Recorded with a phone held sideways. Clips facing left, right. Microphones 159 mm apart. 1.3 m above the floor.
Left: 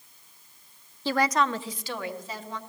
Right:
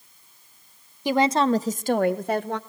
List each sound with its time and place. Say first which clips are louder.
1.1 s a woman speaking: right 5 dB; 15° right (ahead or behind), 0.7 m; by 2.6 s 65° right (ahead or behind), 1.3 m